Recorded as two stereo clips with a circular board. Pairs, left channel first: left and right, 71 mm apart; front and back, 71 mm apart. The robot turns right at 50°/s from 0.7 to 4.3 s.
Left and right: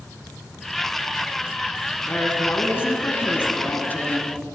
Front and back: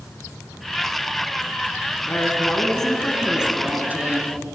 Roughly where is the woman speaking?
Ahead left.